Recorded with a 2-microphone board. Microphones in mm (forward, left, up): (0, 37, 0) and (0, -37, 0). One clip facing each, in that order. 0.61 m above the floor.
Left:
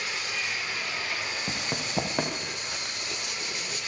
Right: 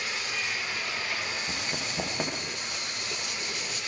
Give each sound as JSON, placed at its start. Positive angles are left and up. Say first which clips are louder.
{"t": 1.5, "sound": "running footsteps", "louder": "left 1 dB", "side_deg": 85, "distance_m": 7.5}